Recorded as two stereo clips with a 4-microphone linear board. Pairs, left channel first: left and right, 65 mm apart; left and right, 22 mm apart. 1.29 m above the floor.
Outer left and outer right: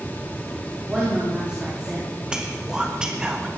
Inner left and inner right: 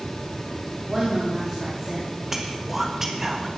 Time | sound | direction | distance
0.9 | a woman speaking | 15° right (ahead or behind) | 3.5 m
2.3 | whispering | 10° right (ahead or behind) | 1.3 m